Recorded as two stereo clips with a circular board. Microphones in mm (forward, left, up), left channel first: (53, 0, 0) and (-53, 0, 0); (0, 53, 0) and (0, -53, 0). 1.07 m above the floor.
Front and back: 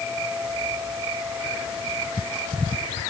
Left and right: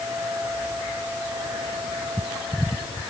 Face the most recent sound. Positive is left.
No sound to turn to.